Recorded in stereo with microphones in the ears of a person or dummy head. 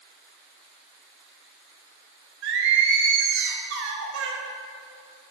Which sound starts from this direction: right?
Singing, at 2.4 s.